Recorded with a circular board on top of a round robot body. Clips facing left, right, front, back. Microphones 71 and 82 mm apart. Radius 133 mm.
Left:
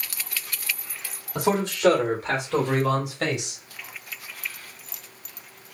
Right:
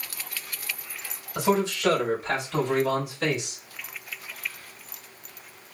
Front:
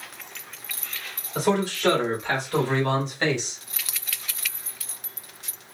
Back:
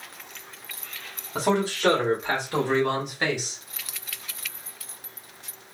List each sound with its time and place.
1.4 s a man speaking: 125° left, 3.5 m; by 3.6 s 95° left, 2.5 m